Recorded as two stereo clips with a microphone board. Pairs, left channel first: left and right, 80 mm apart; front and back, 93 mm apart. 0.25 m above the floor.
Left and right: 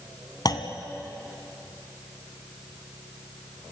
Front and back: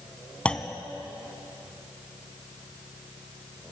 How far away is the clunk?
About 1.8 m.